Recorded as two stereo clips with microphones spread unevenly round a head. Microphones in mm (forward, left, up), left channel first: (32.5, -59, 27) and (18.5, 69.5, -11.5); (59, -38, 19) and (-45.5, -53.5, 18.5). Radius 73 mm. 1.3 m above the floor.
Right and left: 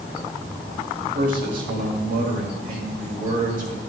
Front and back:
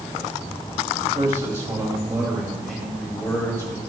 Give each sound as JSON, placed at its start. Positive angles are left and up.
{"t": 1.1, "sound": "a man speaking", "azimuth_deg": 125, "distance_m": 2.5}